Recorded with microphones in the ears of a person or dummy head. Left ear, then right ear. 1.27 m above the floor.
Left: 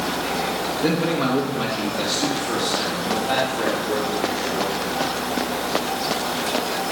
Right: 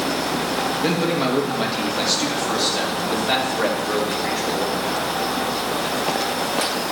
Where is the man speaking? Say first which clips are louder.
Left 2 dB; 5° right (ahead or behind), 1.9 m; by 4.8 s 55° right (ahead or behind), 5 m.